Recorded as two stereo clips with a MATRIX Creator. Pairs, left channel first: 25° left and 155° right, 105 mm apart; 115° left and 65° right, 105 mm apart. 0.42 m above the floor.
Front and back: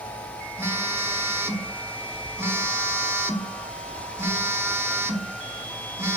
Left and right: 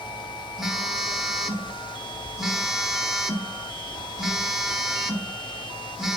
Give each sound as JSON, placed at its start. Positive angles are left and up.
{"t": 0.6, "sound": "a phone buzzing", "azimuth_deg": -150, "distance_m": 1.1}